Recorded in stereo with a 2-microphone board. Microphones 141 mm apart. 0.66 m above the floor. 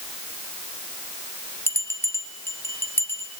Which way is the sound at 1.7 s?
20° left (ahead or behind).